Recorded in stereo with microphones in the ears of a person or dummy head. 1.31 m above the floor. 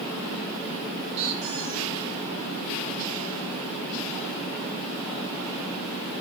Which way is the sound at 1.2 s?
25° right (ahead or behind).